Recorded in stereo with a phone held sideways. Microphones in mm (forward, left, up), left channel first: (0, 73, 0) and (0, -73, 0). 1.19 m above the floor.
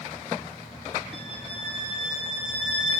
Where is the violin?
45° left (ahead or behind), 7.5 m.